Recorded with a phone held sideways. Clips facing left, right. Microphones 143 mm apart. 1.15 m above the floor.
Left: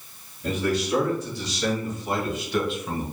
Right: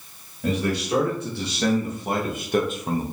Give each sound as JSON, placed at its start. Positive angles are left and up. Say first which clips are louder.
{"t": 0.4, "sound": "a man speaking", "louder": "right 1 dB", "side_deg": -60, "distance_m": 2.0}